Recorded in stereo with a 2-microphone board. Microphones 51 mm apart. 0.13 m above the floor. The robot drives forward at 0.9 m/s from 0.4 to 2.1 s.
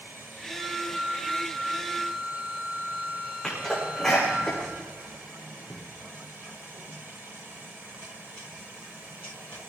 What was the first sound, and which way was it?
A flute, 20° right (ahead or behind).